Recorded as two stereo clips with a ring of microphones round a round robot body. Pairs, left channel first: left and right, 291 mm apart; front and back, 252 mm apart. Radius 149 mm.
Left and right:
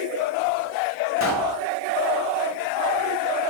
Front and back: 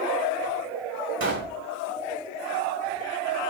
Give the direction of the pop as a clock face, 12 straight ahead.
7 o'clock.